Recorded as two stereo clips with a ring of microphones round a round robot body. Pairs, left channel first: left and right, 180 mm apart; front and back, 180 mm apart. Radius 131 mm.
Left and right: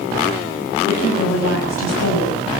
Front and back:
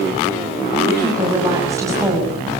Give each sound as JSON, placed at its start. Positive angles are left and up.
{"t": 0.9, "sound": "a woman speaking", "azimuth_deg": 105, "distance_m": 7.0}